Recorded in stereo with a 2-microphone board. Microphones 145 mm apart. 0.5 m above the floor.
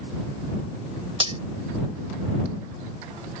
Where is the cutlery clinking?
40° right (ahead or behind).